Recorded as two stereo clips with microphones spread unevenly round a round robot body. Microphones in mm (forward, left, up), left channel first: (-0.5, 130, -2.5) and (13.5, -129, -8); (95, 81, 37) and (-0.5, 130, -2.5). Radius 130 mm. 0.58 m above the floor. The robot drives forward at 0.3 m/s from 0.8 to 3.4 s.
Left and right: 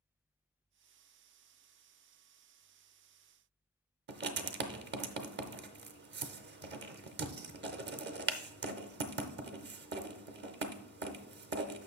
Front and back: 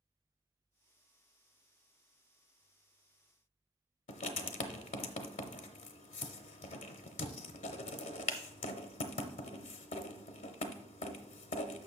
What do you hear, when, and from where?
4.1 s writing: 35° right, 0.6 m